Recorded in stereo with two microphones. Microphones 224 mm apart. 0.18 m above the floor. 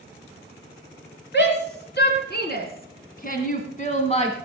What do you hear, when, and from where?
1.3 s a shout: 55° left (ahead or behind), 2.5 m; by 4.3 s 30° left (ahead or behind), 1.6 m